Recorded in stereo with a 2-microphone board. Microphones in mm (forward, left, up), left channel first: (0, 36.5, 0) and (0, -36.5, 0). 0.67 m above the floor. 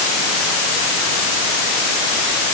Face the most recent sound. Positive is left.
No sound to turn to.